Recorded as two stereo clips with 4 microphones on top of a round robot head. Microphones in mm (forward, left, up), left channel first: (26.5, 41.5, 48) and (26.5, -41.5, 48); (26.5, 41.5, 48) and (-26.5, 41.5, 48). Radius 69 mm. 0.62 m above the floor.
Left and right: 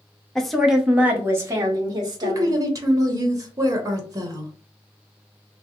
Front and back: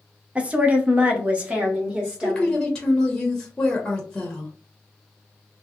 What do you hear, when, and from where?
0.3 s a woman speaking: 165° left, 0.8 m; by 2.5 s 110° right, 1.3 m
2.2 s a woman speaking: 75° right, 0.9 m